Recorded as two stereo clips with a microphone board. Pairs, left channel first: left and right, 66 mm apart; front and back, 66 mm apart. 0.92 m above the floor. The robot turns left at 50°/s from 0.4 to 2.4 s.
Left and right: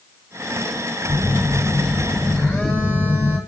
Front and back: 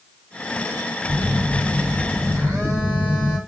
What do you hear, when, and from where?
1.1 s a phone buzzing: 170° right, 1.3 m; by 3.4 s 125° left, 1.3 m